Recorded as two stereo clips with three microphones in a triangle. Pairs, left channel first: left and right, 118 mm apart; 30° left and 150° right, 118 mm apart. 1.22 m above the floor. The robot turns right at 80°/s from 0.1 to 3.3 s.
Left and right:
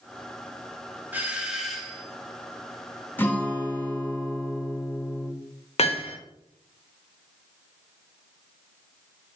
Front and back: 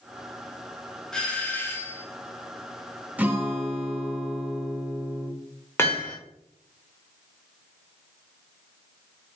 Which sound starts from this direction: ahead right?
A doorbell, at 1.1 s.